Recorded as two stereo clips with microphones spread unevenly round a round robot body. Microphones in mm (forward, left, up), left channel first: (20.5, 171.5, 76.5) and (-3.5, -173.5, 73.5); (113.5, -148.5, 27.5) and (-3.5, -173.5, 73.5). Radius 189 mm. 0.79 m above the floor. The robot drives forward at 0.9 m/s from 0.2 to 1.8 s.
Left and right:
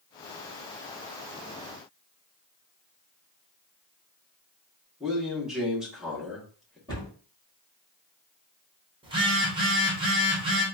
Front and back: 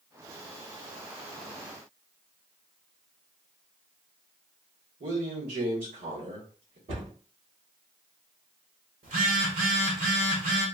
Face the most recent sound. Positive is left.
turn(degrees=-170)